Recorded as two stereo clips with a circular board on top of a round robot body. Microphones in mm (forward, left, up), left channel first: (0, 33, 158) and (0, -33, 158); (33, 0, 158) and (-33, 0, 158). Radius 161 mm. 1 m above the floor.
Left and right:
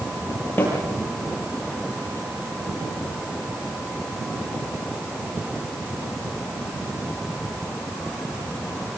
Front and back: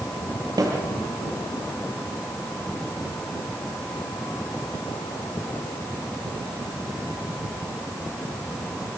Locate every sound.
0.6 s a snare drum: 150° left, 8.5 m